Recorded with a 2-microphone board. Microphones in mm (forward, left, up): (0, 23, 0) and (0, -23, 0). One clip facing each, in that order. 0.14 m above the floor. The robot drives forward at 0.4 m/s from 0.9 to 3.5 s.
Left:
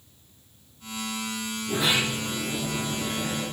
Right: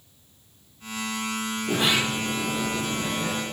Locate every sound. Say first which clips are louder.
1.7 s a sliding door: right 1 dB; 65° right (ahead or behind), 3 m; by 3.4 s 70° right (ahead or behind), 2.5 m